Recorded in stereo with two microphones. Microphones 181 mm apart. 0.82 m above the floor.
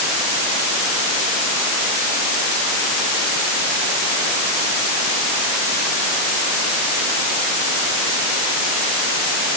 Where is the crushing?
I don't hear crushing.